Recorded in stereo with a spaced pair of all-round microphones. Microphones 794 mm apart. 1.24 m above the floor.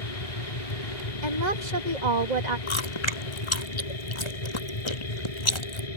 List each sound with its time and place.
0.0 s a machine running: 45° left (ahead or behind)
1.2 s a woman speaking: 60° right (ahead or behind)
2.7 s chewing: 35° left (ahead or behind)